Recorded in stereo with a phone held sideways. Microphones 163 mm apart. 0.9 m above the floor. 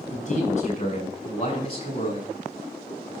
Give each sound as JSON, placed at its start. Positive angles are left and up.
{"t": 0.1, "sound": "a man speaking", "side_deg": 45, "distance_m": 6.5}